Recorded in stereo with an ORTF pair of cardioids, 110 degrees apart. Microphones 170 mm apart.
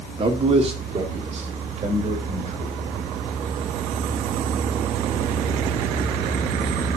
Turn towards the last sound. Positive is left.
turn(degrees=-45)